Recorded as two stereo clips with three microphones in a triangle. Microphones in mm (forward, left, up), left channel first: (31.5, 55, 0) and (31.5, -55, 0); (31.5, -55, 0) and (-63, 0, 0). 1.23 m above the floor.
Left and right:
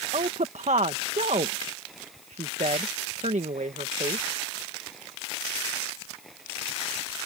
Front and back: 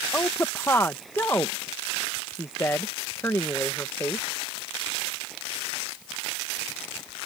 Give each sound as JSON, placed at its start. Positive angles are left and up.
{"t": 0.1, "sound": "a woman speaking", "azimuth_deg": -100}